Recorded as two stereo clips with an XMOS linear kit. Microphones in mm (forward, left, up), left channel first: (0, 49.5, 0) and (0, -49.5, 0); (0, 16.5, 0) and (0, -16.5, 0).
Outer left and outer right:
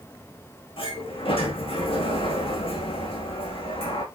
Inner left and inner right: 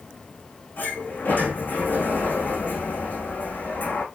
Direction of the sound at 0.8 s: 65° left (ahead or behind).